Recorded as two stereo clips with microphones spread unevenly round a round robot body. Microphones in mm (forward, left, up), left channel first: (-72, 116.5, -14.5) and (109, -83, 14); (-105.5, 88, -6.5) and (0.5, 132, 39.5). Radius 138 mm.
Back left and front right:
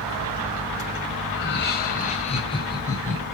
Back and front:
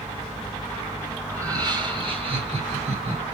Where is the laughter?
95° left, 1.9 m; by 3.2 s 50° left, 3 m.